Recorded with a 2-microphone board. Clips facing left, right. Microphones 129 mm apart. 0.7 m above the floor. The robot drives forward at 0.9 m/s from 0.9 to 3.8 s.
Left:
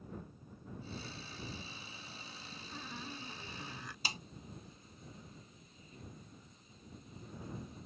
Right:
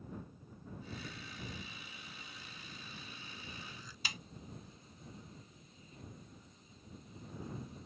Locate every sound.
2.7 s a squeak: 85° left; by 4.0 s 65° left (ahead or behind)
4.0 s a snare drum: 35° left (ahead or behind)